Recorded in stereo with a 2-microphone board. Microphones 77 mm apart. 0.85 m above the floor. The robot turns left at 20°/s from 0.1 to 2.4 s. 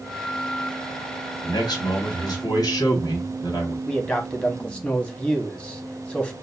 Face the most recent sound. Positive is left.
turn(degrees=15)  # may be behind; listen again after turning